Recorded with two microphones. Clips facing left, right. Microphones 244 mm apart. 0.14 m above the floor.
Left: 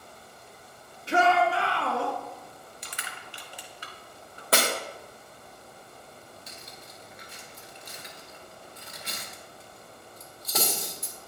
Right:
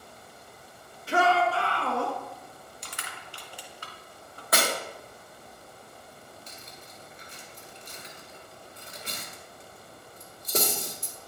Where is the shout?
25° left (ahead or behind), 1.4 m; by 2.1 s centre (ahead or behind), 1.8 m.